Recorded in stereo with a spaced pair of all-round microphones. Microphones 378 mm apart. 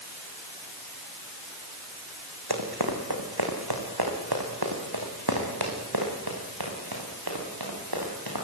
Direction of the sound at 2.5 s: 75° right (ahead or behind).